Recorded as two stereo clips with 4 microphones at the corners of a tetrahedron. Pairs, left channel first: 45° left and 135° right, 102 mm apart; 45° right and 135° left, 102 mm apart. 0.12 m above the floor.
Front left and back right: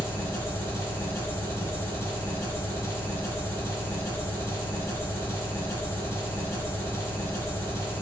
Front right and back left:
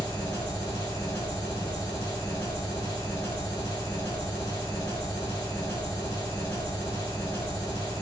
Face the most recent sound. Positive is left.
turn(degrees=0)